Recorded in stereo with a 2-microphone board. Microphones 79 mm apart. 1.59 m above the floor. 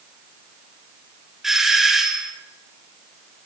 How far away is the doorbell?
About 1.3 m.